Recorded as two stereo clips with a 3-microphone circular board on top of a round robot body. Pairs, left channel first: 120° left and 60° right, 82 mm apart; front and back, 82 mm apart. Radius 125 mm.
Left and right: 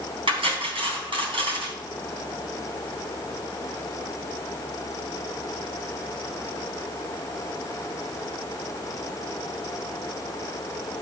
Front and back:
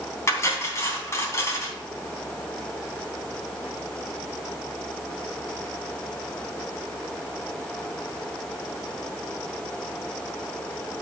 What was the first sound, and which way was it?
Cutlery clinking, 55° right.